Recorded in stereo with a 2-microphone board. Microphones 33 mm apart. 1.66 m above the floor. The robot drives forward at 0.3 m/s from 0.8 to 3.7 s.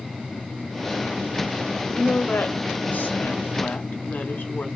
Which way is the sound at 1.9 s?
80° left.